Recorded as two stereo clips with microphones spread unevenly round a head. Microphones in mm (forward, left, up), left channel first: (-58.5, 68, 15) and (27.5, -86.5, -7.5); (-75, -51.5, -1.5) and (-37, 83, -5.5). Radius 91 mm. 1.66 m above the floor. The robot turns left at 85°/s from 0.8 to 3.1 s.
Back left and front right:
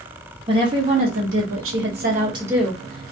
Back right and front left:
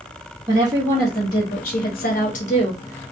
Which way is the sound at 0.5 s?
5° left.